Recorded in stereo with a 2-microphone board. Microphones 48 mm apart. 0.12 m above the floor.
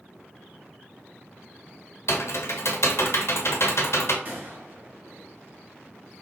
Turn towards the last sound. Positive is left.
turn(degrees=-45)  # may be behind; listen again after turning